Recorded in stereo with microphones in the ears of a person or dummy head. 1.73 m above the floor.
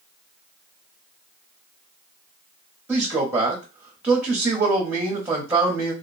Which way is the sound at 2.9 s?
10° right (ahead or behind).